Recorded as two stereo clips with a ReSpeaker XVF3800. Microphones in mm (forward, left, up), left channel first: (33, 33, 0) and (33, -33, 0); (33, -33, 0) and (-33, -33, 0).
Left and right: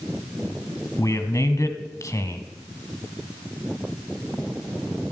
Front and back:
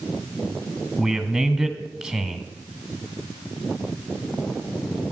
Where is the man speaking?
105° left, 1.6 m.